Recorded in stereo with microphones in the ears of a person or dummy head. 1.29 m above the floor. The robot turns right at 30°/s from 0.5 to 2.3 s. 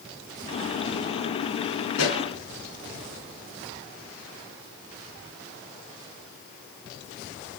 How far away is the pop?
About 5 m.